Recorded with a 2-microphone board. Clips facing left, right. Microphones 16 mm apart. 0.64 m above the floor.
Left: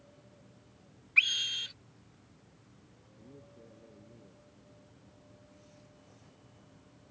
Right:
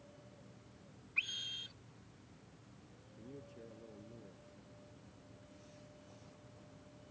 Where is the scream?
50° left (ahead or behind).